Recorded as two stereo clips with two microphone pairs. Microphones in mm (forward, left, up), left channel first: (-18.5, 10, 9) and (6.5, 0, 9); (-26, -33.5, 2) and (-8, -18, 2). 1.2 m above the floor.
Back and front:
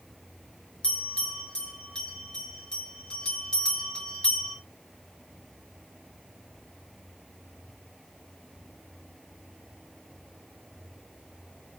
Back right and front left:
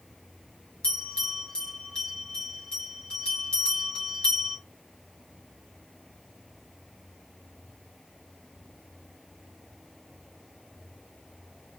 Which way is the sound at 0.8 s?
155° right.